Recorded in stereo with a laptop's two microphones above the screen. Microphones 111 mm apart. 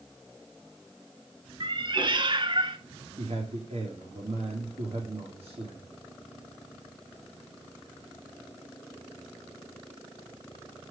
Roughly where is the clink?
I don't hear a clink.